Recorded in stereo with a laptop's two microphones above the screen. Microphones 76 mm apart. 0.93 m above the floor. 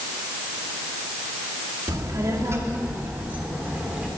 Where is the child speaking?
50° right (ahead or behind), 1.4 m; by 4.1 s 15° right (ahead or behind), 2 m.